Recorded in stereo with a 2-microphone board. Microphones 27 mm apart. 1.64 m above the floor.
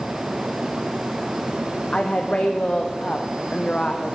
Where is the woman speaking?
40° left (ahead or behind), 0.6 m.